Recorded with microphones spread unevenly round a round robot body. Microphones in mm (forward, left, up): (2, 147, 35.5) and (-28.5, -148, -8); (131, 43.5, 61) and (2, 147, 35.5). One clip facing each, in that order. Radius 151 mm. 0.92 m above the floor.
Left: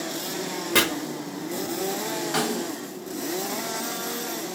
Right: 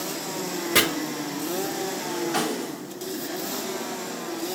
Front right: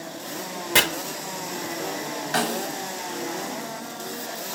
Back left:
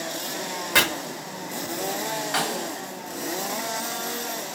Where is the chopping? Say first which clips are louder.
Left 1 dB, front right 1 dB; 5° left, 0.8 m.